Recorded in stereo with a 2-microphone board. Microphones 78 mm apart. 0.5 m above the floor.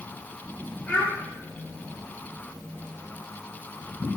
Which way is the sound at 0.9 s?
25° left (ahead or behind).